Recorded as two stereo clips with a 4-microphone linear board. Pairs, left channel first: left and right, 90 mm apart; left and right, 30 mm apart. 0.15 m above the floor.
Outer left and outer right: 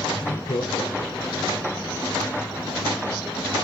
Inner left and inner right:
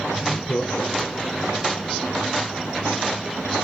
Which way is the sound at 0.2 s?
65° left (ahead or behind).